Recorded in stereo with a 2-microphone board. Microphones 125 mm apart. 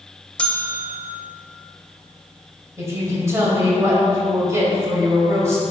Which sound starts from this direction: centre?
A bell, at 0.4 s.